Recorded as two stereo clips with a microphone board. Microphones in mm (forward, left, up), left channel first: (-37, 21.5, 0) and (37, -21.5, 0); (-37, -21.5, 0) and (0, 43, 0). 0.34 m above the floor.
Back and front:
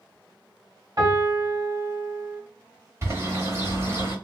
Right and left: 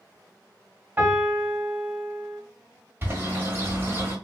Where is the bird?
15° left, 1.5 m.